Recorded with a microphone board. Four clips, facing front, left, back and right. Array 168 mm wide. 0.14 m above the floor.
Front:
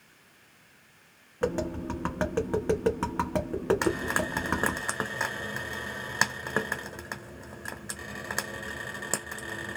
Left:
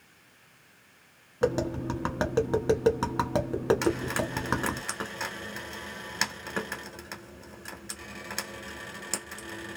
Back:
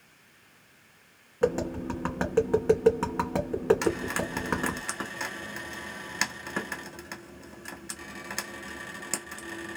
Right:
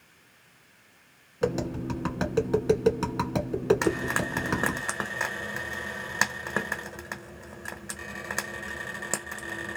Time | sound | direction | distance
1.4 | tapping | 75° left | 1.0 m
3.8 | frying | 45° right | 1.0 m